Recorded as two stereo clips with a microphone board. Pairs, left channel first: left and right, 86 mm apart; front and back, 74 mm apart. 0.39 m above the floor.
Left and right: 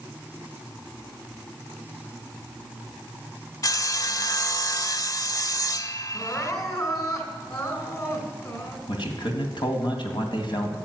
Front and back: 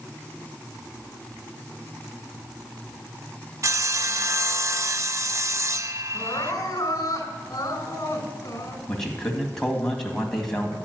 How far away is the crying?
About 2.5 m.